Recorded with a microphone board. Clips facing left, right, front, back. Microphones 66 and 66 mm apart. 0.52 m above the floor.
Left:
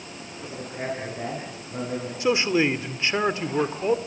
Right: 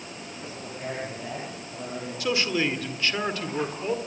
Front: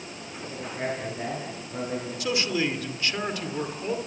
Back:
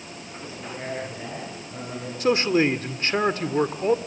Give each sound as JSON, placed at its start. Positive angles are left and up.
{"t": 0.4, "sound": "a man speaking", "azimuth_deg": 70, "distance_m": 8.5}
{"t": 2.2, "sound": "a man speaking", "azimuth_deg": 145, "distance_m": 1.8}